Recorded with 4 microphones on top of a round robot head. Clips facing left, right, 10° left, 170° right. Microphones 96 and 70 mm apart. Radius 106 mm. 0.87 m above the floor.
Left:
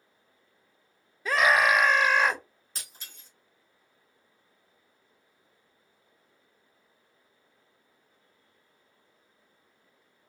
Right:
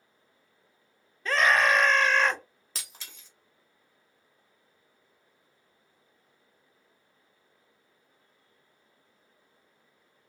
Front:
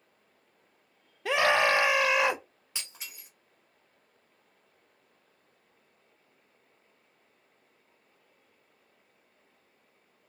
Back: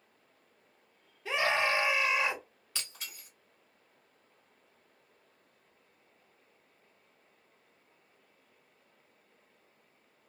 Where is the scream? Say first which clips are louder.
Left 1 dB, front 5 dB; 10° left, 0.5 m.